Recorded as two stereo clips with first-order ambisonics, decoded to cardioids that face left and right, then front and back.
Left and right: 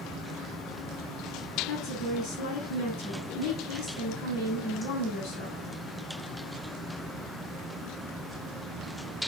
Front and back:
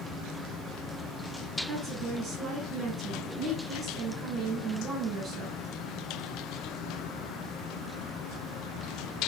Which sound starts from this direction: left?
A woman speaking, at 1.7 s.